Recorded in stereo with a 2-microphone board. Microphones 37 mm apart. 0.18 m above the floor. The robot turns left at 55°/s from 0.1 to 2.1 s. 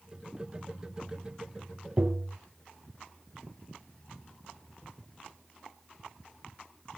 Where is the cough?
I don't hear a cough.